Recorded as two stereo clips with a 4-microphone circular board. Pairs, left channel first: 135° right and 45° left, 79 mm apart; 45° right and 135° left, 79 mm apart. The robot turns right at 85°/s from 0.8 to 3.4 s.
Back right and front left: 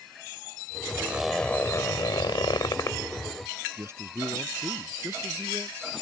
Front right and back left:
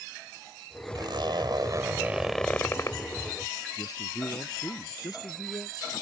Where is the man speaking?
10° right.